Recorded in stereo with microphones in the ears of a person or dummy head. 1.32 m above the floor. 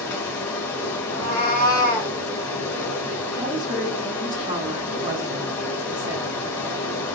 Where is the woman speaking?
20° right (ahead or behind), 0.7 m.